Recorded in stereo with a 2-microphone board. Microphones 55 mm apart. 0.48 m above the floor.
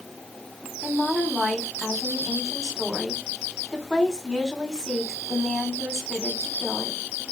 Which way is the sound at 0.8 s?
10° left (ahead or behind).